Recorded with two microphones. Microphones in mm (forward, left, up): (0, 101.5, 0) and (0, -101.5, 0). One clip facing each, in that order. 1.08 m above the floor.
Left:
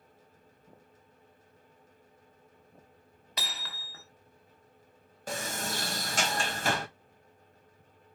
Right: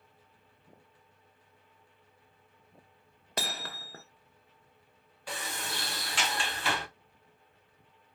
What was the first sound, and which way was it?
Hammering, 50° right (ahead or behind).